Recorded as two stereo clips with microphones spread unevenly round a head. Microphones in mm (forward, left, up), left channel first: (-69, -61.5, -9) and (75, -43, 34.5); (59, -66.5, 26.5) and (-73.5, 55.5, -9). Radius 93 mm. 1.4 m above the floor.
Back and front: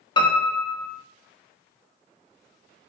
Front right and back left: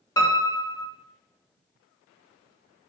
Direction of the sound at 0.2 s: 110° right.